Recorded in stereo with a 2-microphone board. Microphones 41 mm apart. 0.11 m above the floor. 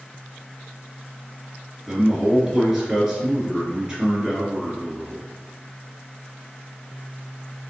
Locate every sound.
1.9 s a man speaking: 15° right (ahead or behind), 1.6 m